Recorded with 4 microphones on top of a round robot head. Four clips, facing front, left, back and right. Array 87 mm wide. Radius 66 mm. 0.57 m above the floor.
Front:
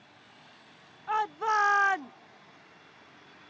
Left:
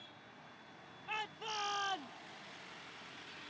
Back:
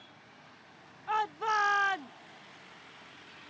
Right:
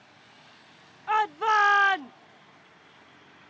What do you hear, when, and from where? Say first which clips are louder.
1.1 s a shout: right 20 dB, front 2 dB; 75° right; by 2.1 s 55° right